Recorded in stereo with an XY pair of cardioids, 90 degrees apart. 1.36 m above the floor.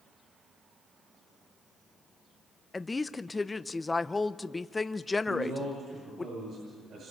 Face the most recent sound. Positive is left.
turn(degrees=-65)